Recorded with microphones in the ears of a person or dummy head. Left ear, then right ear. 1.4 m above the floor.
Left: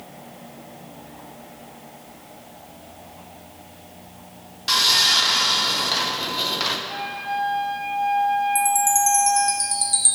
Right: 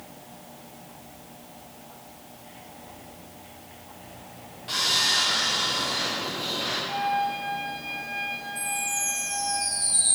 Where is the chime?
85° left, 1.4 m.